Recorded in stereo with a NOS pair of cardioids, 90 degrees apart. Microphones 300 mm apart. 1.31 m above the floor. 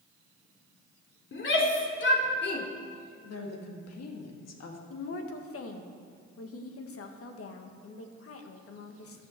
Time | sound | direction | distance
1.3 | a shout | 40° left | 3 m
3.2 | a woman speaking | 55° left | 2 m
4.9 | a woman speaking | 50° left | 1.7 m